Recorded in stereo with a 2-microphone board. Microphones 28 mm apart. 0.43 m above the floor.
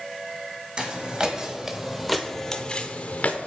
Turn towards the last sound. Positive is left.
turn(degrees=60)  # may be behind; listen again after turning